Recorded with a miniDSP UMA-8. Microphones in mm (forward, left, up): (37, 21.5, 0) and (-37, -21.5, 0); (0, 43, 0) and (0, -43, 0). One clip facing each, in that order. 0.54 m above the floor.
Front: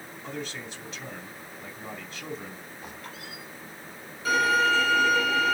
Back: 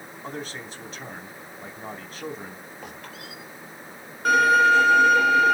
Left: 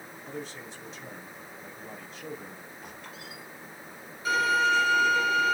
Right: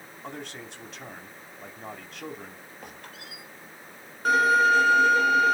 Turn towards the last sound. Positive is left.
turn(degrees=-125)